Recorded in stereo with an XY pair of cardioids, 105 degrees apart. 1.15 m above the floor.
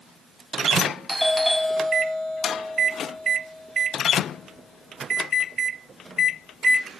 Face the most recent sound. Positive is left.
turn(degrees=-10)